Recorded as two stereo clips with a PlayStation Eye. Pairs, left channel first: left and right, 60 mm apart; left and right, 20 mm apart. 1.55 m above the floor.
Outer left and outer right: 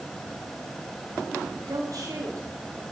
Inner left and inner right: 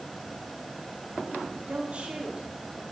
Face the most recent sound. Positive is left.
turn(degrees=-75)  # may be behind; listen again after turning